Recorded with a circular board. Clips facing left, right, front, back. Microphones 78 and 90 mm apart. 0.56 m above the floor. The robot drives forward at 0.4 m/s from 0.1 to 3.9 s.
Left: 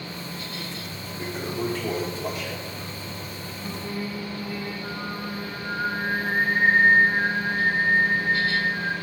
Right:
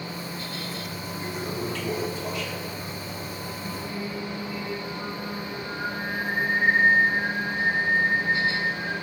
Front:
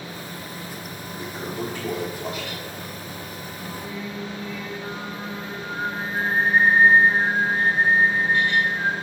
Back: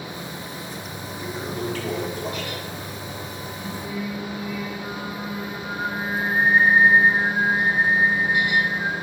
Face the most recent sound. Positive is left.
turn(degrees=90)